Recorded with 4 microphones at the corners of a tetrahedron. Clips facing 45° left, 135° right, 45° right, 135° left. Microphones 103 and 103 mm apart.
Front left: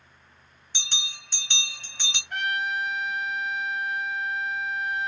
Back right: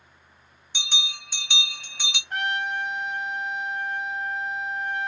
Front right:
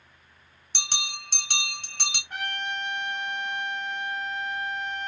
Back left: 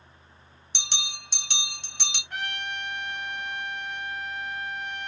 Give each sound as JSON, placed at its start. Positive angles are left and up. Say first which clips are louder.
{"t": 0.7, "sound": "a bell", "louder": "back right 5 dB, front right 3 dB", "azimuth_deg": -60, "distance_m": 1.7}
{"t": 2.3, "sound": "a trumpet", "louder": "back right 1 dB, front right 1 dB", "azimuth_deg": -100, "distance_m": 1.7}